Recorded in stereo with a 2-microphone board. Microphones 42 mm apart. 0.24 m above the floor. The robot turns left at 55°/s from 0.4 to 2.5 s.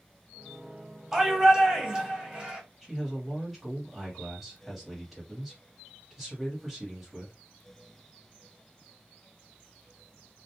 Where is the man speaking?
5° right (ahead or behind), 1.3 m.